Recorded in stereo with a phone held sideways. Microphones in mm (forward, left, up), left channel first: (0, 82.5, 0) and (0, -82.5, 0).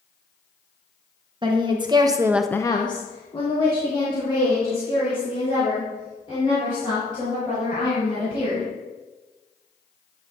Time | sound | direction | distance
1.4 | a woman speaking | 30° right (ahead or behind) | 1.3 m